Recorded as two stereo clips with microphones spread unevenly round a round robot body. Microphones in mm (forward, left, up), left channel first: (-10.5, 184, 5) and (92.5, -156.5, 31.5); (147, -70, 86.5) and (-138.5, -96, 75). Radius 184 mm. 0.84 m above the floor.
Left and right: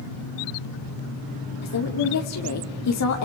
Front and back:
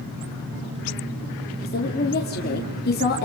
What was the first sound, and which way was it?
A woman speaking, 65° left.